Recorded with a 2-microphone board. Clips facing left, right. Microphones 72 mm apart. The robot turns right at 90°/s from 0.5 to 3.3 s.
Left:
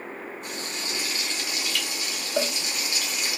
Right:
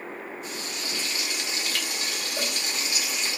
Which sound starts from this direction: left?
A cowbell, at 2.4 s.